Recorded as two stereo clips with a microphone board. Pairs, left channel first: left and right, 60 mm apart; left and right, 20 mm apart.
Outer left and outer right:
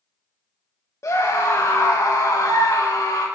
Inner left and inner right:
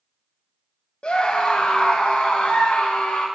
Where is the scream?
60° left (ahead or behind), 1.6 m; by 3.3 s 85° left, 3 m.